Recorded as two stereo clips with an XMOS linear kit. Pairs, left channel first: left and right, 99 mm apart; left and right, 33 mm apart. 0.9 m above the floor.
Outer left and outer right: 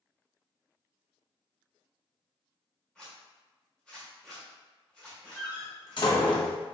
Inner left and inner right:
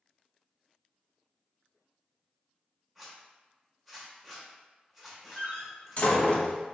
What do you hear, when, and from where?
3.0 s a zipper: 10° left (ahead or behind), 1.6 m
5.4 s a door slam: 50° left (ahead or behind), 0.9 m